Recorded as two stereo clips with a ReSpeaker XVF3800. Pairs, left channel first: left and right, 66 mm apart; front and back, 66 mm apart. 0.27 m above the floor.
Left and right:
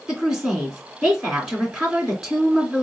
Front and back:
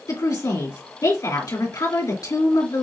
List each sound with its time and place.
0.1 s a woman speaking: 5° right, 2.5 m